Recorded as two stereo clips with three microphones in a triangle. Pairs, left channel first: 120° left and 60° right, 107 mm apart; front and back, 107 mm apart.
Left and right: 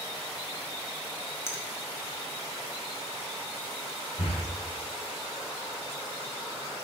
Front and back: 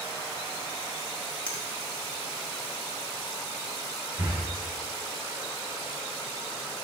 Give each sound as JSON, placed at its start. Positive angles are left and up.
{"t": 1.5, "sound": "a finger snap", "azimuth_deg": 70, "distance_m": 1.0}
{"t": 4.2, "sound": "breathing", "azimuth_deg": 100, "distance_m": 2.0}